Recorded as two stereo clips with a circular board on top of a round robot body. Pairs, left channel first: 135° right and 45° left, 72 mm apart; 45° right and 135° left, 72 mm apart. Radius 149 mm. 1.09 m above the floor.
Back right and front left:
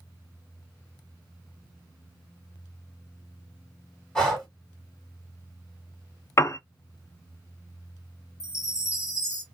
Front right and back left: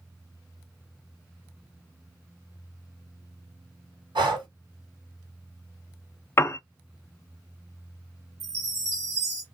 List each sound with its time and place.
4.2 s breathing: 145° left, 1.8 m
6.4 s a piano: 95° right, 0.7 m
8.4 s a chime: straight behind, 1.2 m